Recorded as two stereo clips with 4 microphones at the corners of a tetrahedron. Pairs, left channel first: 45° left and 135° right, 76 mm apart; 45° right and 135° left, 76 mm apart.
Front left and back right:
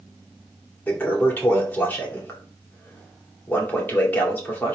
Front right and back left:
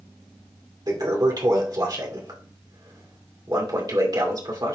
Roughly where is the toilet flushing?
Left.